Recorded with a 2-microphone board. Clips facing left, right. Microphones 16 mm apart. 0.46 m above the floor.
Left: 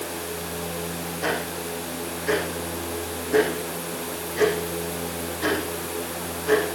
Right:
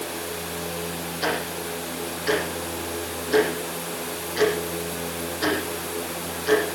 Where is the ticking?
80° right, 8.5 m.